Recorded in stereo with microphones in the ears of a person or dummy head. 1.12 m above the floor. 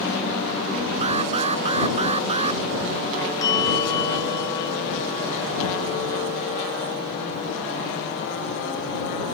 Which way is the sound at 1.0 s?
30° right (ahead or behind).